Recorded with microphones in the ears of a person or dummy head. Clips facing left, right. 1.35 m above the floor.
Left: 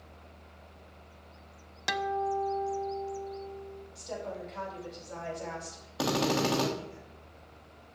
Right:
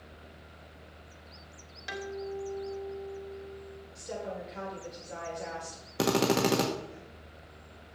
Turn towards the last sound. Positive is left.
turn(degrees=-35)  # may be behind; listen again after turning